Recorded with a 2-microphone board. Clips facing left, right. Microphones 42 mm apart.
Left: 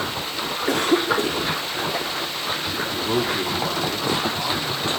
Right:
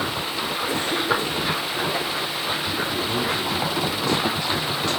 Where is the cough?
80° left, 5 m.